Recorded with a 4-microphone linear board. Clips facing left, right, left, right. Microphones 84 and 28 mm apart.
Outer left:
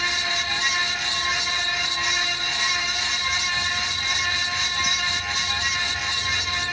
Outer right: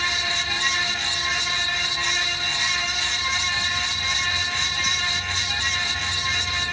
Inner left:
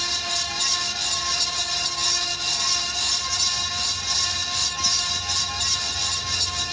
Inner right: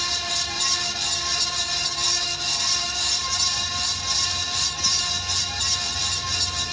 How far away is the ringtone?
No ringtone in this recording.